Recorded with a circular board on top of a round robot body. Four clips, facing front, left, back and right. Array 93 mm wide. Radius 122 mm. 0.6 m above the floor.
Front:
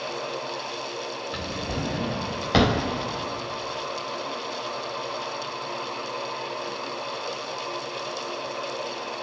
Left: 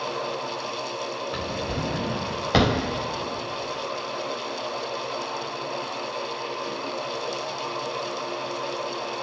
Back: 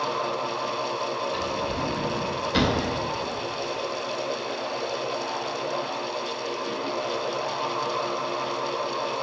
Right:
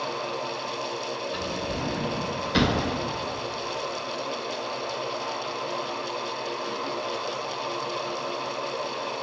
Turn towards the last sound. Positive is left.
turn(degrees=50)